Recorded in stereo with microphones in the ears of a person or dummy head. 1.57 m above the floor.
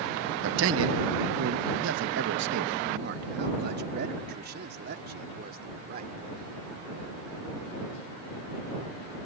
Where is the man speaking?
70° right (ahead or behind); by 6.2 s 45° right (ahead or behind).